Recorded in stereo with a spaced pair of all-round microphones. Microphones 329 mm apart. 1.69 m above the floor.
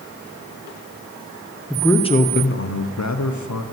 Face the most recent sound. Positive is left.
turn(degrees=70)  # may be behind; listen again after turning